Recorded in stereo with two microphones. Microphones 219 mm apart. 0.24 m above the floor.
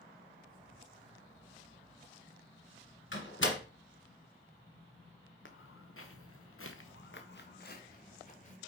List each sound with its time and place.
3.1 s a door slam: 65° left (ahead or behind), 1.6 m
5.5 s footsteps: 65° left (ahead or behind), 1.3 m; by 8.6 s 35° left (ahead or behind), 2 m